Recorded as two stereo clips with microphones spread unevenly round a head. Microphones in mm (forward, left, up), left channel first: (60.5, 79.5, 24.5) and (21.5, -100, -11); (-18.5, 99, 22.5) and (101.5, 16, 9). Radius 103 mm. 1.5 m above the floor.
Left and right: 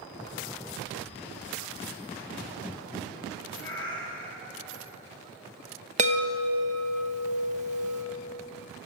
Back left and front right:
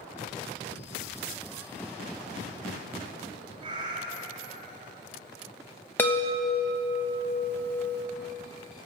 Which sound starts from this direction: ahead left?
A cat meowing, at 3.6 s.